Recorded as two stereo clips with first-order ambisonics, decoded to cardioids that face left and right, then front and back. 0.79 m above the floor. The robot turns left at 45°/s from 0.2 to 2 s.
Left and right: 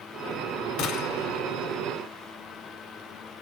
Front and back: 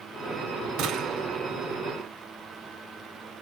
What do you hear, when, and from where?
0.8 s a gunshot: 135° left, 1.5 m; by 1.4 s 105° left, 1.5 m